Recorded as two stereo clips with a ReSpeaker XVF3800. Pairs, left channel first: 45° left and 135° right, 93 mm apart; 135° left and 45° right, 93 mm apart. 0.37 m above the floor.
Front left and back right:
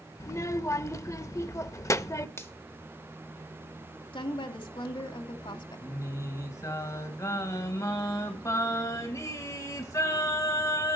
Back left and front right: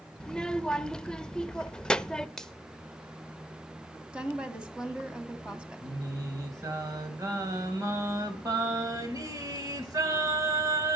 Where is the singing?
Straight ahead, 2.5 m.